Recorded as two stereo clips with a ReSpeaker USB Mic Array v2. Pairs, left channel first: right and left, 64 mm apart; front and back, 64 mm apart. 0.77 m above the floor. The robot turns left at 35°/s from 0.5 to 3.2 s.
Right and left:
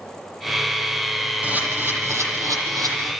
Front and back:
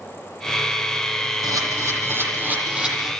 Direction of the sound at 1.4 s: 155° left.